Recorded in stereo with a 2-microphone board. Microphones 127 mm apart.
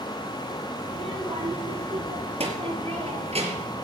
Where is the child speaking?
50° right (ahead or behind), 5 m; by 3.7 s 55° right (ahead or behind), 3.5 m.